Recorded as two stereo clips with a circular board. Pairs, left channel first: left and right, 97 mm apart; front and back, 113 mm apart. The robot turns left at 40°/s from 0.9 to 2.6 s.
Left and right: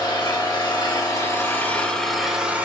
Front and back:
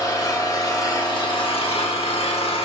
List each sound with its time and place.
0.0 s an engine running: 50° left, 1.6 m; by 2.6 s 20° right, 1.6 m